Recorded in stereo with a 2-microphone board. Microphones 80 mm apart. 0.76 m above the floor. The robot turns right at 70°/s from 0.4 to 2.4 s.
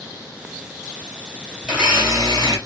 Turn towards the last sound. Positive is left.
turn(degrees=-115)